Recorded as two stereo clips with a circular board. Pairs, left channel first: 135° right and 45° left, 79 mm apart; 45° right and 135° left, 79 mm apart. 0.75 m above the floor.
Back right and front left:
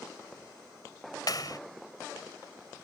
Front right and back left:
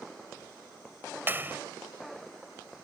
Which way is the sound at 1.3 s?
160° right.